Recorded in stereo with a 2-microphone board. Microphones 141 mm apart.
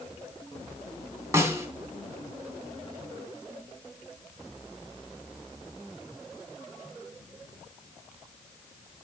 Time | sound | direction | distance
1.3 | a snare drum | 20° right (ahead or behind) | 3 m